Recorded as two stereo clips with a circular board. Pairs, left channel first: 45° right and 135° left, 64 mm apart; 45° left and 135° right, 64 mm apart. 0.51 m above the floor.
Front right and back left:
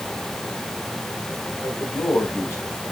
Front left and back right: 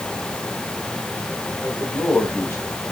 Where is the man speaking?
5° right, 4.5 m; by 2.8 s 5° left, 5 m.